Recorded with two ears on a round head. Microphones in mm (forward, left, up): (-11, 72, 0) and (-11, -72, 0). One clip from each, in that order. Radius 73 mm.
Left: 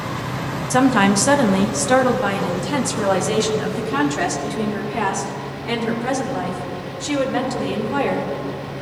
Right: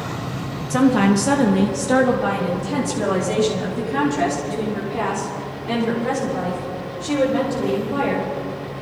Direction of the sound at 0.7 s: 30° left (ahead or behind).